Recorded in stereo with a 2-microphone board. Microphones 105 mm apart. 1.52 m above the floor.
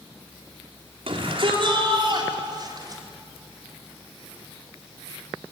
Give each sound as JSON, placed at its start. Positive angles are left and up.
{"t": 1.1, "sound": "a shout", "side_deg": -60, "distance_m": 5.0}